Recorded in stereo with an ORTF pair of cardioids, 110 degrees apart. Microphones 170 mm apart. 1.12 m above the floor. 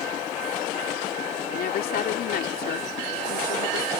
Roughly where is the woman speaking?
Ahead left.